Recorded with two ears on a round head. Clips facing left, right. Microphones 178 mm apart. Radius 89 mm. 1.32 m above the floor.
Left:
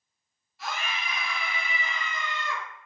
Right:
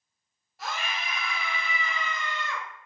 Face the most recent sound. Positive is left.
turn(degrees=55)  # may be behind; listen again after turning